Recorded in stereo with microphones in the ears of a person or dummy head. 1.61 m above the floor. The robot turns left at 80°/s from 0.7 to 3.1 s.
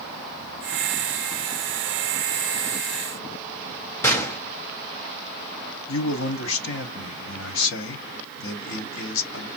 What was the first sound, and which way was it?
A gunshot, 15° left (ahead or behind).